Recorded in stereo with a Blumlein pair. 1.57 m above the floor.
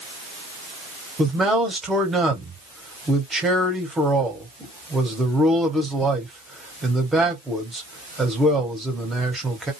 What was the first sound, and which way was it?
A man speaking, 10° right.